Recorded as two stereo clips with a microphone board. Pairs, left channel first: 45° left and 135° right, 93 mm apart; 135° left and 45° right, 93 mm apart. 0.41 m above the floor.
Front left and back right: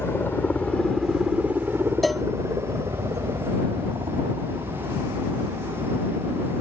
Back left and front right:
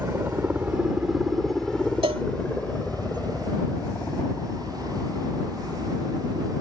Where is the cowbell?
45° right.